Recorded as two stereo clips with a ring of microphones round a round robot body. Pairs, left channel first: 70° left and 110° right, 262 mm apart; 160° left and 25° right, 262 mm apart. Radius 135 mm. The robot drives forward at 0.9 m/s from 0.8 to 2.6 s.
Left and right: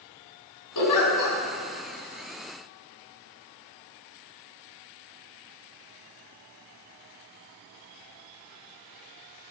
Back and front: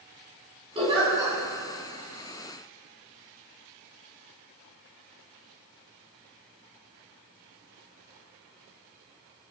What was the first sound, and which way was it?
A giggle, 50° left.